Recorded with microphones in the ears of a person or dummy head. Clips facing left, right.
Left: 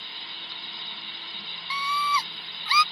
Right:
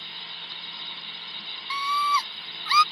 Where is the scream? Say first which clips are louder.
Right 1 dB; 30° left (ahead or behind).